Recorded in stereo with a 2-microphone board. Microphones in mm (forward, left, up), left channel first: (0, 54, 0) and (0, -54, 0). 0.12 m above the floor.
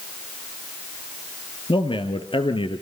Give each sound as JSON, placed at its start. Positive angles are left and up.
{"t": 1.7, "sound": "a man speaking", "side_deg": 50, "distance_m": 2.5}